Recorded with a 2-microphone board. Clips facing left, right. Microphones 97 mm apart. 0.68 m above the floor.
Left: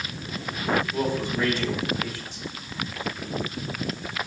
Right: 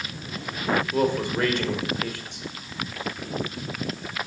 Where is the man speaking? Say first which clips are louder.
Right 3 dB; 65° right (ahead or behind), 2.5 m.